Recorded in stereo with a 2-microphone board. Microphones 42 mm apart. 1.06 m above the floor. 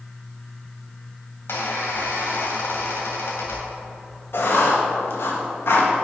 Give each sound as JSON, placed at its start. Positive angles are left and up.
{"t": 1.5, "sound": "a squeak", "side_deg": 65, "distance_m": 2.5}
{"t": 4.3, "sound": "writing", "side_deg": 65, "distance_m": 1.8}